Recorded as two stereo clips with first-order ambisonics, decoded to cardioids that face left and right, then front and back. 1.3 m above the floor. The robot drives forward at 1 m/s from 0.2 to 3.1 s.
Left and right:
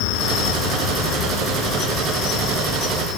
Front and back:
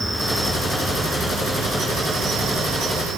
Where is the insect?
90° left, 3.5 m; by 3.2 s 130° left, 4.5 m.